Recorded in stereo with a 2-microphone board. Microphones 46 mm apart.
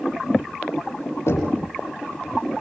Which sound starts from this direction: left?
Knocking, at 1.3 s.